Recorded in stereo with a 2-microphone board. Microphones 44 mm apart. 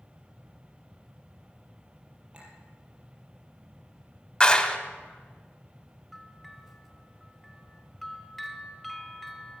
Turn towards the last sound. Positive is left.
turn(degrees=5)  # may be behind; listen again after turning